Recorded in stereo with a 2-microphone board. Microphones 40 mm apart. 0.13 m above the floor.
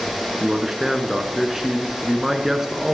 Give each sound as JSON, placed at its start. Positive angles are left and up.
{"t": 0.4, "sound": "a man speaking", "side_deg": -10, "distance_m": 1.3}